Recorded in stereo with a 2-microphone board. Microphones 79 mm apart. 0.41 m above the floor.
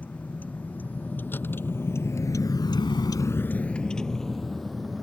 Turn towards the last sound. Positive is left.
turn(degrees=0)  # may be behind; listen again after turning